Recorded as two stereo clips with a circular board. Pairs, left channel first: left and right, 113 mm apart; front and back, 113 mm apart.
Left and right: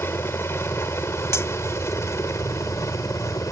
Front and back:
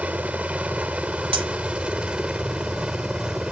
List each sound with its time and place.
0.0 s a helicopter: 120° left; by 3.5 s 105° left
1.3 s cutlery clinking: 150° left